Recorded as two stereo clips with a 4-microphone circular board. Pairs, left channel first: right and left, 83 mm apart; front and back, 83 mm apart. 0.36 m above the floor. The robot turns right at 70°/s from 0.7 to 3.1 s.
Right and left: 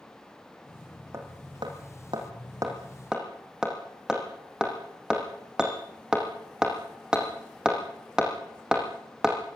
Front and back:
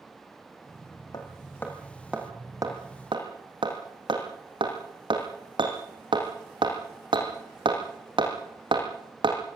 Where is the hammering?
35° left, 5 m; by 9.4 s 170° left, 5 m.